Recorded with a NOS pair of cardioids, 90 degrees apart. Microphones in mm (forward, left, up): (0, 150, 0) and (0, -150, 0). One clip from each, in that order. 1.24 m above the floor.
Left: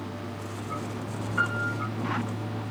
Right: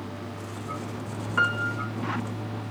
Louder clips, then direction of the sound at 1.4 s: Right 3 dB; 40° right.